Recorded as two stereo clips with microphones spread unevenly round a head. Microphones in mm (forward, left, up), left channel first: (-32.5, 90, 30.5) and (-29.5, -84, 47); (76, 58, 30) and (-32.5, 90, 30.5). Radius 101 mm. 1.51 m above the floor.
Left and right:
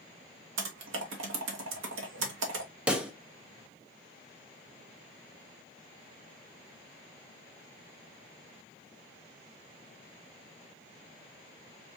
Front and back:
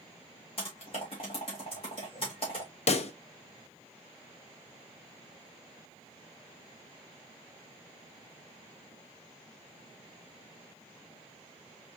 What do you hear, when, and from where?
0.6 s typing on a keyboard: 75° right, 1.3 m
2.9 s a pop: 5° right, 0.7 m